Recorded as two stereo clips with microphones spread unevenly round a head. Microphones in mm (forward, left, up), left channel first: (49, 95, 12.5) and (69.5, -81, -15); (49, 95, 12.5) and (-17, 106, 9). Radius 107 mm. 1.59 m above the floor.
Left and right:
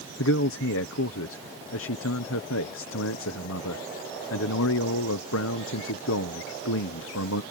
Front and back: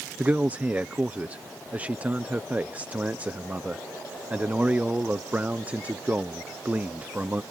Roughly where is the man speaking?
Left.